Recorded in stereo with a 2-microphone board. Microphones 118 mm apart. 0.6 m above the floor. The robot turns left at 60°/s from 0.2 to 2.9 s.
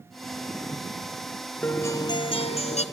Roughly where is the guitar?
Behind.